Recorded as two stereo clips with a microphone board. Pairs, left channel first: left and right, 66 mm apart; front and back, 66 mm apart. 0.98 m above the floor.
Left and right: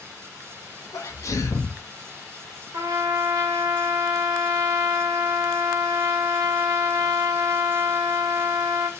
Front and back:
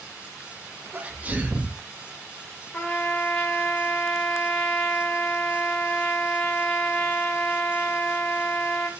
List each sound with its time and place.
0.9 s a sneeze: 120° left, 1.4 m
2.7 s a trumpet: 65° right, 2.5 m